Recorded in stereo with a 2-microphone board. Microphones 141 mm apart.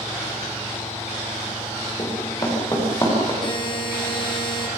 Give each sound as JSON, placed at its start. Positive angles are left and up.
{"t": 2.0, "sound": "running footsteps", "side_deg": 30, "distance_m": 10.0}
{"t": 3.4, "sound": "a buzzer", "side_deg": 40, "distance_m": 4.5}